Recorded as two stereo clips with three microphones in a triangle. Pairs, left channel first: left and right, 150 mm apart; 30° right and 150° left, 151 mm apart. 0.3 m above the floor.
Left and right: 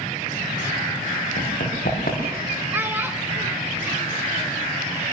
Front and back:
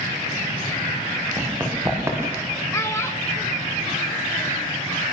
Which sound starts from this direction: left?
Running footsteps, at 1.4 s.